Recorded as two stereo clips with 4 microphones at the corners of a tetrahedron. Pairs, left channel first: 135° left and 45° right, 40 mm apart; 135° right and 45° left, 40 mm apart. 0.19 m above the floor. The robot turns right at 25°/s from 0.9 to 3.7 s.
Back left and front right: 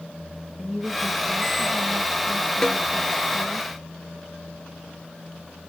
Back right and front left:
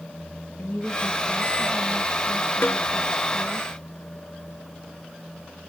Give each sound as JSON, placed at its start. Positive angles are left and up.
{"t": 0.6, "sound": "a woman speaking", "azimuth_deg": -115, "distance_m": 5.0}
{"t": 2.6, "sound": "a snare drum", "azimuth_deg": -145, "distance_m": 1.0}